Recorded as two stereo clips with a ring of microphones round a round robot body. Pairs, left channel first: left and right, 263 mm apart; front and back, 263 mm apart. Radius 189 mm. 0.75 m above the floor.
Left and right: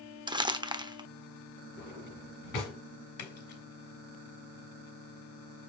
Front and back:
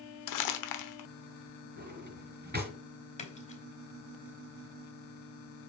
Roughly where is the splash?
Ahead left.